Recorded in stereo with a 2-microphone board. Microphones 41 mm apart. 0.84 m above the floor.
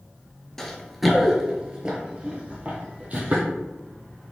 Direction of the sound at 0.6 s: 10° left (ahead or behind).